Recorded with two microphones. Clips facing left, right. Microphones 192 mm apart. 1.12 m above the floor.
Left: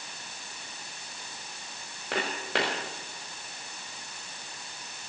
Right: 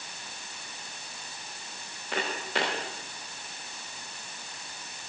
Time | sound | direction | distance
2.1 | footsteps | 70° left (ahead or behind) | 7 m